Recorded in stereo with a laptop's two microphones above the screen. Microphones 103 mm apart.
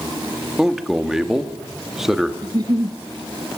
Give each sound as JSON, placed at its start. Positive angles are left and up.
{"t": 0.6, "sound": "a man speaking", "side_deg": -5, "distance_m": 1.2}
{"t": 2.4, "sound": "a giggle", "side_deg": -40, "distance_m": 1.3}